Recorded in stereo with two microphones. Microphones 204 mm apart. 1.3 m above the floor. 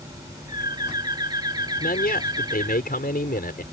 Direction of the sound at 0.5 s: 20° right (ahead or behind).